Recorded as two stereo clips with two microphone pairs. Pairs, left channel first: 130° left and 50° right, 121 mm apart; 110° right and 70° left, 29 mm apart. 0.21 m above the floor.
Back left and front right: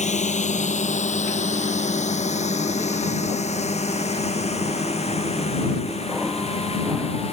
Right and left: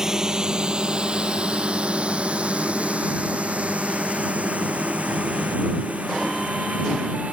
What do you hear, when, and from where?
0.0 s a drone: 135° left; by 7.3 s 95° left